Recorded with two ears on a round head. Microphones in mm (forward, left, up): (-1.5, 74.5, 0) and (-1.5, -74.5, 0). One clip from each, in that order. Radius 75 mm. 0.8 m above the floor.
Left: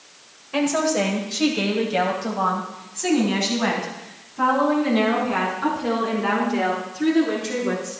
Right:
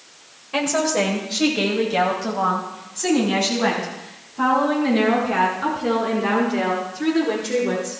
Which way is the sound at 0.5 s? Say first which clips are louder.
Right 1 dB; 10° right (ahead or behind).